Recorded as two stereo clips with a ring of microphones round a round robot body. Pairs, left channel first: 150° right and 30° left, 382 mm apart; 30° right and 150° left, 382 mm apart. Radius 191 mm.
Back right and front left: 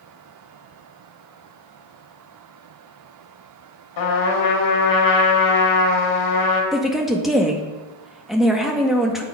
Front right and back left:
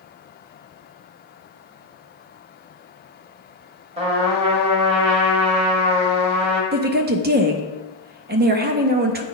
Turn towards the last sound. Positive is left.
turn(degrees=120)